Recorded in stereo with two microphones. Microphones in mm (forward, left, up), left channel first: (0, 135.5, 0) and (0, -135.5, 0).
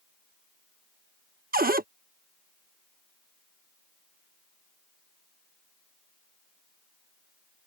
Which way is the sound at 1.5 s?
35° right (ahead or behind).